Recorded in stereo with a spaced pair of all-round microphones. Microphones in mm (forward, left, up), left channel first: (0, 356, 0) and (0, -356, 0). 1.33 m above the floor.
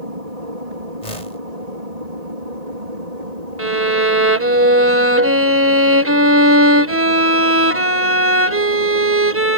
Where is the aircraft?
55° right (ahead or behind); by 9.6 s 65° right (ahead or behind).